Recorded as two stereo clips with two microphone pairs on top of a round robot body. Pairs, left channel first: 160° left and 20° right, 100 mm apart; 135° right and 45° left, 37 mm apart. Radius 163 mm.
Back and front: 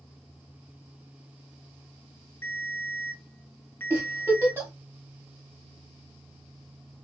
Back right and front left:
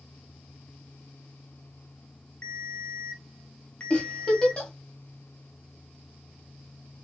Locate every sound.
2.4 s a ringtone: 140° right, 1.0 m
3.9 s a giggle: 85° right, 1.4 m